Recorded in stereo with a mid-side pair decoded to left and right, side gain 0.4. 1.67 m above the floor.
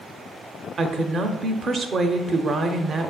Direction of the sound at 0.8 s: 50° right.